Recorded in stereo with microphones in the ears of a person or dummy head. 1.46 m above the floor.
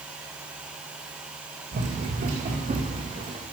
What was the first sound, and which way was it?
Running footsteps, 45° right (ahead or behind).